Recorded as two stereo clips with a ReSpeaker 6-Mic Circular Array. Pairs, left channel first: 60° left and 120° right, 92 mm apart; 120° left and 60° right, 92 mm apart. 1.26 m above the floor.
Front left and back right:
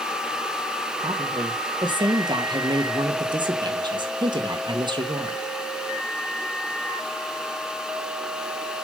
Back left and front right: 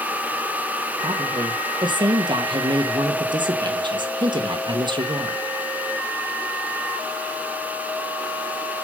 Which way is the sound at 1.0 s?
85° right.